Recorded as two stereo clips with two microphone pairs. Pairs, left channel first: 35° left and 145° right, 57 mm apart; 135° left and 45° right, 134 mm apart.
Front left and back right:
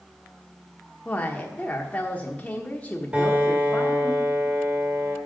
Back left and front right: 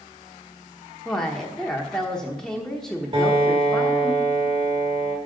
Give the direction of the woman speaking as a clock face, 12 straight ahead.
10 o'clock.